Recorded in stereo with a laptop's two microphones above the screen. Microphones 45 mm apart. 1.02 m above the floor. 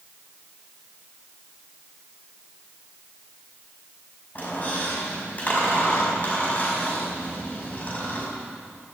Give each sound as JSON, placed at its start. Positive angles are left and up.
{"t": 4.3, "sound": "a squeak", "side_deg": 40, "distance_m": 5.0}